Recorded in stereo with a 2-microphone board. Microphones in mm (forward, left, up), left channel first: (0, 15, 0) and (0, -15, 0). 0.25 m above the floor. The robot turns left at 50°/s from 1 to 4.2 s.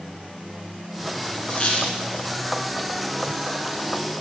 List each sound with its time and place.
1.5 s a squeak: 40° left (ahead or behind), 2 m; by 2.0 s 60° left (ahead or behind), 2 m